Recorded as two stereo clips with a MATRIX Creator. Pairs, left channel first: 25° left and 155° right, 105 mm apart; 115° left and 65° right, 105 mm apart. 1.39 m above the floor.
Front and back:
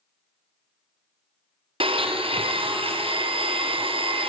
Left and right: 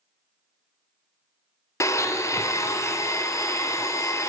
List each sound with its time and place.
1.8 s a blender: 175° left, 0.6 m